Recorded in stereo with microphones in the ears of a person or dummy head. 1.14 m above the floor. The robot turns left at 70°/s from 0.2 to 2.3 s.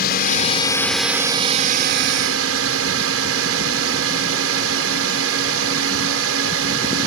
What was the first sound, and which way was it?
A drone, 50° left.